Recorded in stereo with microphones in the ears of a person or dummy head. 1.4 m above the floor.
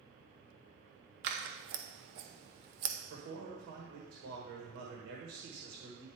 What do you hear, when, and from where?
1.2 s scissors: 55° right (ahead or behind), 0.9 m
3.1 s a man speaking: 60° right (ahead or behind), 1.4 m